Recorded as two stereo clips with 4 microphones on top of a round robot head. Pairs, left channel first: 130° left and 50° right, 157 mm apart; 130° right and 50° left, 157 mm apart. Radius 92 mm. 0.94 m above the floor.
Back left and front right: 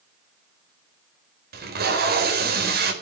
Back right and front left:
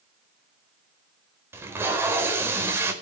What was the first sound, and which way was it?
Tape being pulled, 25° right.